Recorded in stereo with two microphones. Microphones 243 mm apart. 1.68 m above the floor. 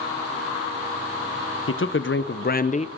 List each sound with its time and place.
1.7 s a man speaking: 60° left (ahead or behind), 1.1 m; by 2.9 s 25° left (ahead or behind), 0.7 m